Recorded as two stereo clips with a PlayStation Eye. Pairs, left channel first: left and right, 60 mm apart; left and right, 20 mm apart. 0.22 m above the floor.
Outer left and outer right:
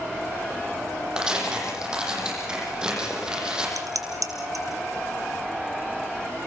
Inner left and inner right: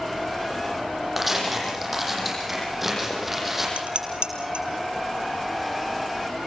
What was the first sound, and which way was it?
Tearing paper, 15° right (ahead or behind).